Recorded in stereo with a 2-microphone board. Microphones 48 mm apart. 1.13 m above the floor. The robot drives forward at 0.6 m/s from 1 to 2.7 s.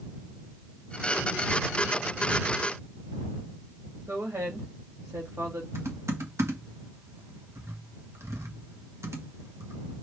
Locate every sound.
4.1 s a woman speaking: 80° right, 1.9 m
5.8 s typing on a keyboard: 70° right (ahead or behind), 1.3 m